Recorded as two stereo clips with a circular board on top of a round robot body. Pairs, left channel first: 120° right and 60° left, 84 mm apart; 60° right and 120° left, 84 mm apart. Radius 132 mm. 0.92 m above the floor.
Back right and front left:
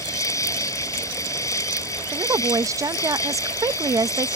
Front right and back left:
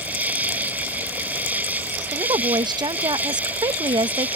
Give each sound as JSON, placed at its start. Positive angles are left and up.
{"t": 0.0, "sound": "an insect", "azimuth_deg": -170}
{"t": 2.1, "sound": "a woman speaking", "azimuth_deg": 105}